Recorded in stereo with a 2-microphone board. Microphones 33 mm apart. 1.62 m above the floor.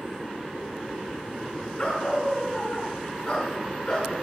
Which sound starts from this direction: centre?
A dog barking, at 1.8 s.